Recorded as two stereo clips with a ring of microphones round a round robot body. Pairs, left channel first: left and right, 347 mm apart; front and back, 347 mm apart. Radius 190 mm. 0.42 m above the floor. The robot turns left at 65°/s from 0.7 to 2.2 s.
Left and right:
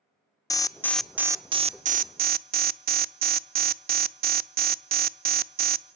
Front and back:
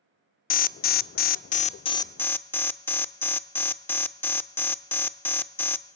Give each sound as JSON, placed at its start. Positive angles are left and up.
{"t": 0.5, "sound": "an alarm", "azimuth_deg": 20, "distance_m": 0.5}